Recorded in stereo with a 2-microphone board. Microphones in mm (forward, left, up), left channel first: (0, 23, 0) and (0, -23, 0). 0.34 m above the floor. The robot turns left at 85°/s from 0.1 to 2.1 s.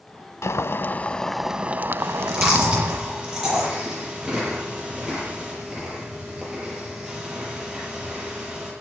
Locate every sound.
0.4 s boiling: 80° left, 0.5 m; by 3.0 s 65° right, 0.5 m
2.0 s chewing: 25° right (ahead or behind), 7 m; by 8.7 s 15° right (ahead or behind), 7 m